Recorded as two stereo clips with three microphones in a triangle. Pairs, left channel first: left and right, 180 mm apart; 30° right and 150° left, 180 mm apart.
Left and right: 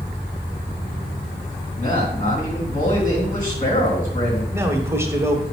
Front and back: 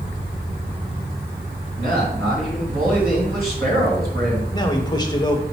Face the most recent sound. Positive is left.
turn(degrees=-35)